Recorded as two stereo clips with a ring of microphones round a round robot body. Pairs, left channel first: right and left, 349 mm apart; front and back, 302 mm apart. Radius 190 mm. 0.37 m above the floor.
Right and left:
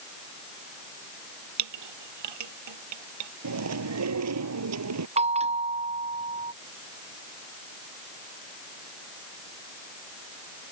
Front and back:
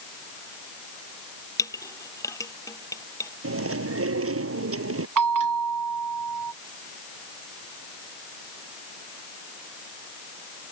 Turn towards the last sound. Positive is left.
turn(degrees=165)